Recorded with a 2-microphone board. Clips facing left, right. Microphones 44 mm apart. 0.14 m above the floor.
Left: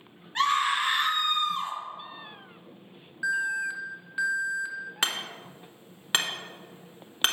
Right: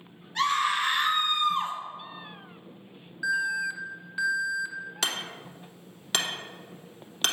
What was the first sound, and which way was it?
A scream, 35° left (ahead or behind).